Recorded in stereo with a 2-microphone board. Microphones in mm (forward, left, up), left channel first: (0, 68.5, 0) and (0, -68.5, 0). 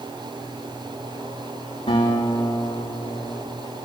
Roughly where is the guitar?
Left.